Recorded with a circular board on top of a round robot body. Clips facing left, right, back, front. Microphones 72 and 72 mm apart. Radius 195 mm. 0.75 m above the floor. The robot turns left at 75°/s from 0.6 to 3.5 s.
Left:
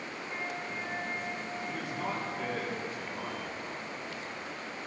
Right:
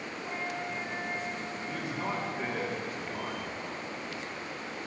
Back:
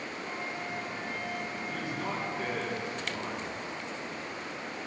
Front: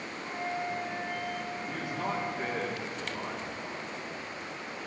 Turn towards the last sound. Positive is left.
turn(degrees=-125)